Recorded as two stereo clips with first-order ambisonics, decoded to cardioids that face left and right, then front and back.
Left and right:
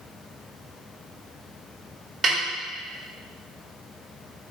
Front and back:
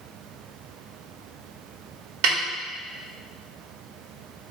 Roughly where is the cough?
I don't hear a cough.